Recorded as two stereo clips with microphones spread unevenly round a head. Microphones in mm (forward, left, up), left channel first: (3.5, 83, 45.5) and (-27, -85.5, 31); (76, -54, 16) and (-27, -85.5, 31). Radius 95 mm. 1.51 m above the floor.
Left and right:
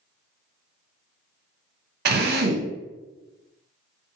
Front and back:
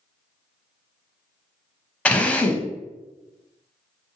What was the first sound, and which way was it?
A drill, 65° right.